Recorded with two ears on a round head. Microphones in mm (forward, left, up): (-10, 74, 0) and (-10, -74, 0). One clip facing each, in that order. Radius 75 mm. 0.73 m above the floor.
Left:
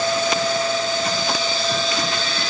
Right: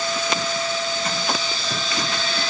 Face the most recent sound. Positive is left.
No sound to turn to.